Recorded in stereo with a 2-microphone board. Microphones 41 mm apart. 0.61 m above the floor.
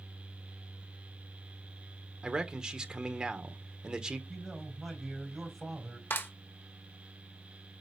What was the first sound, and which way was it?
A man speaking, 15° right (ahead or behind).